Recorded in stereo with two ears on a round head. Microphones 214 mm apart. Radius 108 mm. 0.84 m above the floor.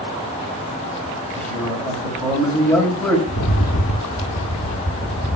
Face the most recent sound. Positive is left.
turn(degrees=55)  # may be behind; listen again after turning